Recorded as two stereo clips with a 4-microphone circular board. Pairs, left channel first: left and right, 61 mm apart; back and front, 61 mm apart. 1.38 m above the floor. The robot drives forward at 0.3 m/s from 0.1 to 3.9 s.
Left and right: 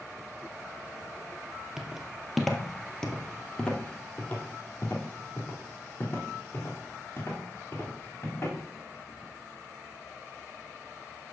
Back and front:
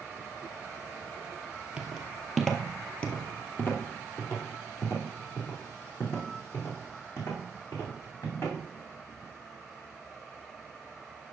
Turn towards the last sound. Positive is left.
turn(degrees=135)